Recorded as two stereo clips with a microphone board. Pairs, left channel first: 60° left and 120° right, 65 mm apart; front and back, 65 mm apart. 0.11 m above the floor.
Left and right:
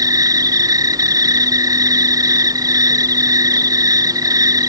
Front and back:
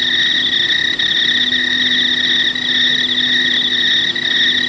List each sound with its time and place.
0.0 s an insect: 90° right